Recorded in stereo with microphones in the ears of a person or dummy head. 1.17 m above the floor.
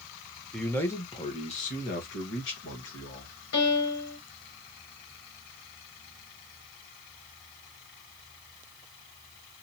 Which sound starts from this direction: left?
A piano, at 3.5 s.